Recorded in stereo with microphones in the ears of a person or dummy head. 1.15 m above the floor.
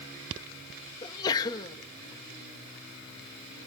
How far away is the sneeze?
About 1.1 m.